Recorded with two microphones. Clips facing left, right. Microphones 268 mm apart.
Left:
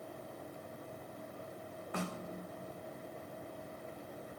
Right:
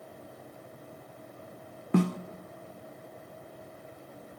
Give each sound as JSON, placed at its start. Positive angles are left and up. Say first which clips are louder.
{"t": 1.9, "sound": "a snare drum", "louder": "right 16 dB", "side_deg": -70, "distance_m": 0.6}